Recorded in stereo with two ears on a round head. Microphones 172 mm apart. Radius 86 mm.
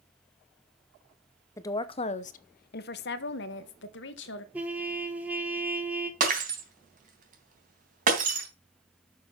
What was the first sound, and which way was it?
A woman speaking, 15° left (ahead or behind).